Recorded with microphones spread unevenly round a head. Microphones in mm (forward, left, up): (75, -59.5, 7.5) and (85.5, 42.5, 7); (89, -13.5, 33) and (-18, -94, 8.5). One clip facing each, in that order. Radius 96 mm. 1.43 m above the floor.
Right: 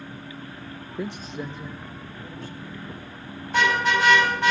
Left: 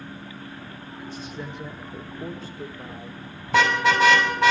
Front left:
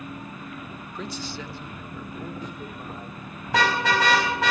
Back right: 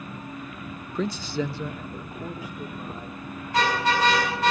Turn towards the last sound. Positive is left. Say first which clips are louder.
# left 2 dB, front left 1 dB
turn(degrees=85)